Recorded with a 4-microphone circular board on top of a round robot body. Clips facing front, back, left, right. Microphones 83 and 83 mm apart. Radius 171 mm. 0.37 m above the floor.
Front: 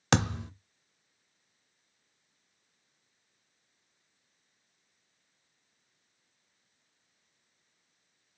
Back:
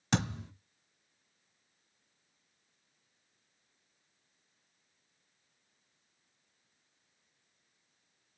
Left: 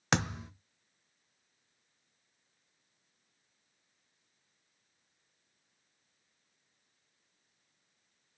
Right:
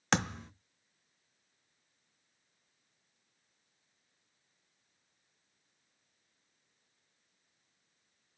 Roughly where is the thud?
Ahead.